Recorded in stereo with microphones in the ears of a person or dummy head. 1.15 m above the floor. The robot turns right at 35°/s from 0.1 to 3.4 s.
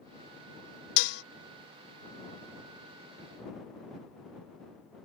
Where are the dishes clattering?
70° left (ahead or behind).